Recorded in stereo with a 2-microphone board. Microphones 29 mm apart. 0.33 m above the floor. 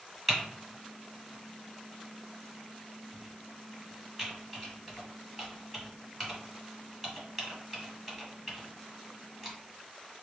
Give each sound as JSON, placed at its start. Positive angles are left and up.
{"t": 0.3, "sound": "typing on a keyboard", "side_deg": -5, "distance_m": 2.0}